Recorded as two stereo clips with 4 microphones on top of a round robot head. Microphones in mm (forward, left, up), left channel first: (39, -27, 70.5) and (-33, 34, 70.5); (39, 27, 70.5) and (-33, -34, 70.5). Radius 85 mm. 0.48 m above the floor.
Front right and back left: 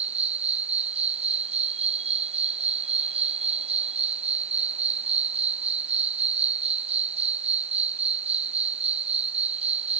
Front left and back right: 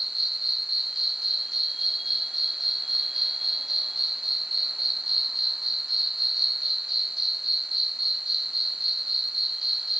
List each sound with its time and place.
0.0 s an insect: 130° left